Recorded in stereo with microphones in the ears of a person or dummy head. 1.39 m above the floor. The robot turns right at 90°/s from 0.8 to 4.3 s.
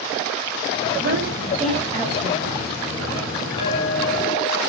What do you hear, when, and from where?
1.0 s a woman speaking: 65° right (ahead or behind), 8.5 m; by 2.5 s 75° left (ahead or behind), 8.5 m
3.6 s a clink: 150° left, 8 m; by 4.6 s 145° right, 8 m